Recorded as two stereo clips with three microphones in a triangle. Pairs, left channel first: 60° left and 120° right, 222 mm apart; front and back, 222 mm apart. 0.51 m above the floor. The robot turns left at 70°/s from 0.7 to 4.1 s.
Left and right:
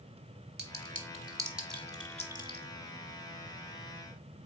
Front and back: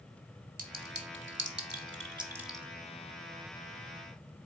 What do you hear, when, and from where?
0.6 s a clink: 145° right, 0.8 m; by 2.6 s 80° left, 0.8 m